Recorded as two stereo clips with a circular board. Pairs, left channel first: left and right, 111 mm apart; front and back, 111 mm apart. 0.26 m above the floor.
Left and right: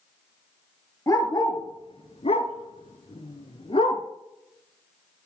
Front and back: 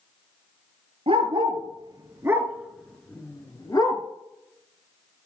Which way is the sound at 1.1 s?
150° left.